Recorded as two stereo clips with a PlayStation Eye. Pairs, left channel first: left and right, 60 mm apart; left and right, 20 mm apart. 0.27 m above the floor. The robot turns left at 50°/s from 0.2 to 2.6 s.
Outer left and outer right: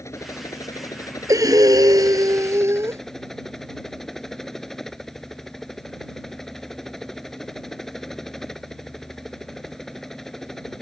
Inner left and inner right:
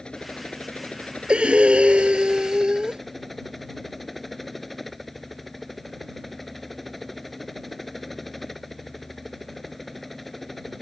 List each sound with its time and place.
0.0 s a helicopter: 125° left; by 10.8 s 5° left
1.3 s breathing: 65° right; by 3.0 s 130° right